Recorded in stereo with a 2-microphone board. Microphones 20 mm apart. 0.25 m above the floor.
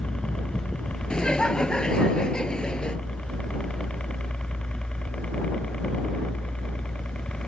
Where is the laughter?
45° left (ahead or behind).